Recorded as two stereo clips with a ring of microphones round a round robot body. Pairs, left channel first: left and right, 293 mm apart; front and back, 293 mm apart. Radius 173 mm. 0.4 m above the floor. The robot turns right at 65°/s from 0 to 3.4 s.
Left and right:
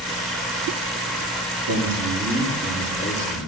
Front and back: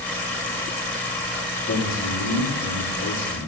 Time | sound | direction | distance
1.7 | a man speaking | 60° right | 7.5 m